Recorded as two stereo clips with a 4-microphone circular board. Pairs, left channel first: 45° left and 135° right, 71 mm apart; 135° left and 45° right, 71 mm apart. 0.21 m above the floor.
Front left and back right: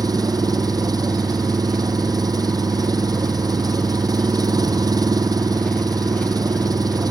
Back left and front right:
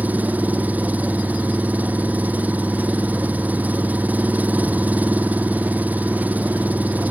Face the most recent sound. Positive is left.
turn(degrees=-115)